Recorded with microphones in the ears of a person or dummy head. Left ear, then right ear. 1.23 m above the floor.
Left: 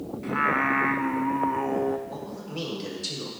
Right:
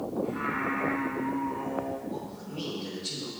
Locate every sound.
0.2 s singing: 60° left (ahead or behind), 0.8 m
2.1 s a man speaking: 65° left (ahead or behind), 5 m